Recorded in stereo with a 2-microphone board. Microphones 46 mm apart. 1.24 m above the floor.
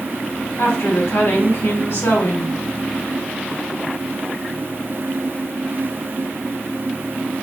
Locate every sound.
0.6 s a woman speaking: 80° left, 1.7 m